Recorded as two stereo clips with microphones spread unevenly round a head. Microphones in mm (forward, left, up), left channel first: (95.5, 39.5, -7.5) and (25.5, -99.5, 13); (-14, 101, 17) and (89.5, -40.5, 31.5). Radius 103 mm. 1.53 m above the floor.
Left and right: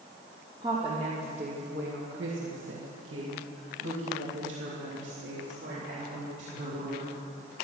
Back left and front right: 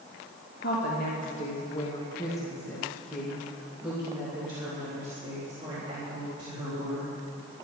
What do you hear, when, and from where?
0.6 s a woman speaking: 170° left, 2.5 m; by 7.1 s 105° right, 4.5 m